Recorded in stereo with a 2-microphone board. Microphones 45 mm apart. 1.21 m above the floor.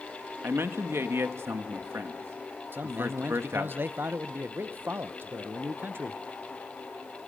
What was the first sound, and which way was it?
A man speaking, 70° right (ahead or behind).